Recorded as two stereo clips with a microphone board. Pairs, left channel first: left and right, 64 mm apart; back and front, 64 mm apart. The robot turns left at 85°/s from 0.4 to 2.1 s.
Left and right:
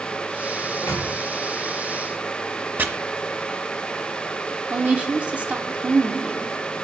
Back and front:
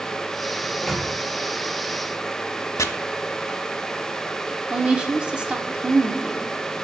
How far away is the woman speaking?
About 0.8 m.